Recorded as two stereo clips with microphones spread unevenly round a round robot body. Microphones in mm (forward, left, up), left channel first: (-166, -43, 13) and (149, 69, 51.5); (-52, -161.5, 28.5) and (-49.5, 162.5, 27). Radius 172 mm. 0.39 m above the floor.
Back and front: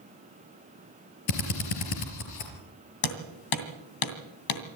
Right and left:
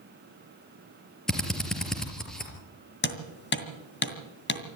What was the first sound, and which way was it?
A drill, straight behind.